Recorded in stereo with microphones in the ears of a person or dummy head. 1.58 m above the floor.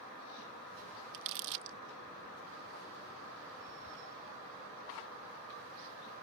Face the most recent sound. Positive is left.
turn(degrees=-55)  # may be behind; listen again after turning